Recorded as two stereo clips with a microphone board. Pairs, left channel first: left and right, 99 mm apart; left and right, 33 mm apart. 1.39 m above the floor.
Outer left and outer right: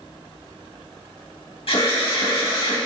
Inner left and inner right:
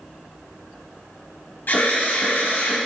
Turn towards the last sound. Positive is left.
turn(degrees=75)  # may be behind; listen again after turning